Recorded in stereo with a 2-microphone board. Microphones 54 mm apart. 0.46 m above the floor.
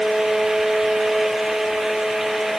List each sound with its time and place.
Only background noise.